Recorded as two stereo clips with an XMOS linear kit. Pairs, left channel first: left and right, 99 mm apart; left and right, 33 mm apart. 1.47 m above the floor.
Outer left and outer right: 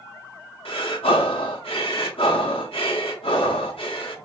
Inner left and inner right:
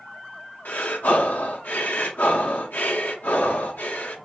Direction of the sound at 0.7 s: 70° left (ahead or behind).